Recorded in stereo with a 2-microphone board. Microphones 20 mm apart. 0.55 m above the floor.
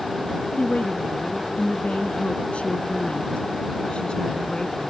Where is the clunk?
No clunk in this recording.